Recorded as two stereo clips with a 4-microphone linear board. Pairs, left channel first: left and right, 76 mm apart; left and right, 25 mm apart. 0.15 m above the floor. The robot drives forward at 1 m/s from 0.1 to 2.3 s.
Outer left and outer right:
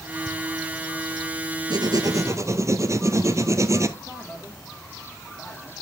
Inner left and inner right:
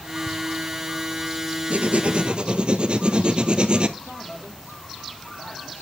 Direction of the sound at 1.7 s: 70° right (ahead or behind).